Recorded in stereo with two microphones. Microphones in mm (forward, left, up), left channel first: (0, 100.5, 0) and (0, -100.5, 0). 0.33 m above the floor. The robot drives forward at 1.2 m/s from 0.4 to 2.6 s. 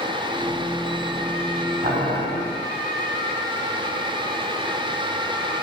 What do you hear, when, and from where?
1.8 s boiling: 40° right (ahead or behind), 1.1 m; by 2.2 s 30° right (ahead or behind), 1.4 m